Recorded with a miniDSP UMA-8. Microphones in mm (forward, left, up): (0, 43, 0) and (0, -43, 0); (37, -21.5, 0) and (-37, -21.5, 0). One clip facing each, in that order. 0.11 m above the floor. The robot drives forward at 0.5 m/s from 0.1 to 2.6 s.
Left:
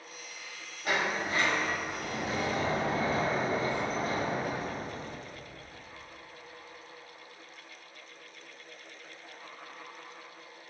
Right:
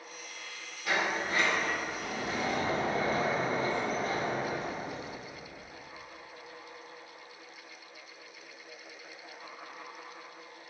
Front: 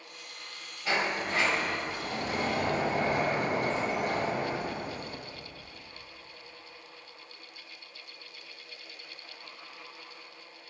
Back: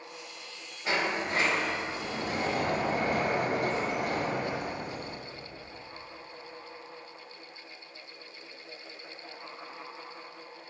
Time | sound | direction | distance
0.8 | a sliding door | 120° left | 1.7 m